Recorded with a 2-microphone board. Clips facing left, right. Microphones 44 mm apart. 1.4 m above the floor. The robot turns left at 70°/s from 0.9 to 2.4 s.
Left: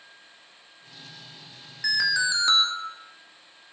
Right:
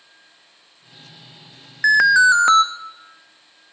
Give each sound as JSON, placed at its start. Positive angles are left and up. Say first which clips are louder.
{"t": 1.8, "sound": "an alarm", "louder": "right 13 dB", "azimuth_deg": -70, "distance_m": 1.0}